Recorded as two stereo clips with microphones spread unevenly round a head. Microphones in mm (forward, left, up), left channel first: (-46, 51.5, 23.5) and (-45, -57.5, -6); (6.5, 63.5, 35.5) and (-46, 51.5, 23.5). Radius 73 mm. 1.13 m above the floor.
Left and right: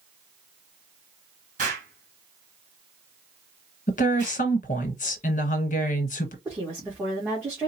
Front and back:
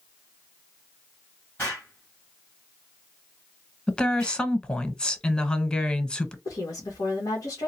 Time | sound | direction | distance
1.6 | an explosion | 60° right | 1.5 m
3.9 | a woman speaking | 90° left | 1.3 m
6.5 | a woman speaking | 15° right | 1.6 m